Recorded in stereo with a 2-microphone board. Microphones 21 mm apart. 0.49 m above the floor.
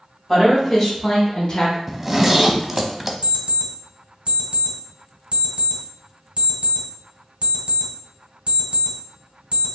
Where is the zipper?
10° right (ahead or behind), 0.6 m.